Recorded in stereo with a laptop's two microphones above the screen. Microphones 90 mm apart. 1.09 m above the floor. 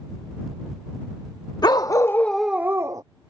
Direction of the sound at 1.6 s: 50° left (ahead or behind).